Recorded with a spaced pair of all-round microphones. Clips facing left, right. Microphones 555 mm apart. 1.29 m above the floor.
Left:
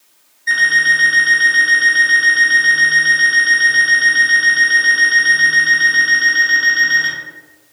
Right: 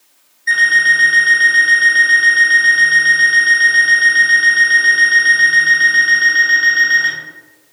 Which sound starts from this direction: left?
An alarm clock, at 0.5 s.